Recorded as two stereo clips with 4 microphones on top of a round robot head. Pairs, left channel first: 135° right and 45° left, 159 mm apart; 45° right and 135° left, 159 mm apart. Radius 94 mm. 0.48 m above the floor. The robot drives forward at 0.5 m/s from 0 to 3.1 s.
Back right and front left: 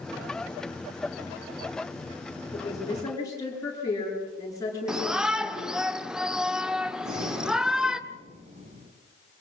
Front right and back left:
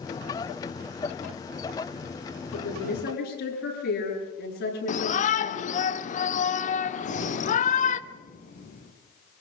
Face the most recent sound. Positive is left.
turn(degrees=-5)